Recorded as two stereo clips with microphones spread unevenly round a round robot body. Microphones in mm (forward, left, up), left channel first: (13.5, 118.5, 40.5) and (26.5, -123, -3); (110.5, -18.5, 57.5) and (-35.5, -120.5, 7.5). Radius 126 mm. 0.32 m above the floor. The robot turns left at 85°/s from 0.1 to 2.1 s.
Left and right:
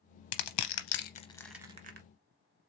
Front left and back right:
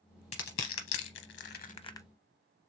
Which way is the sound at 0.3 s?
100° left.